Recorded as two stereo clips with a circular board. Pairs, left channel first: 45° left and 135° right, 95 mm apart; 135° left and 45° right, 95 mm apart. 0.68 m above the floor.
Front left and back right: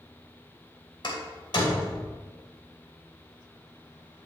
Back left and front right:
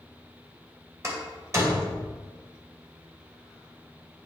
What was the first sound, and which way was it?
A door slam, 10° left.